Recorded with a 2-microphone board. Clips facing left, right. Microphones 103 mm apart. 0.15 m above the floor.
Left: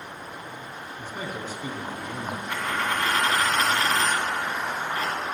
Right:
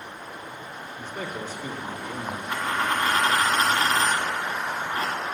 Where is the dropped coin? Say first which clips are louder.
Right 2 dB; 15° right (ahead or behind), 2 m.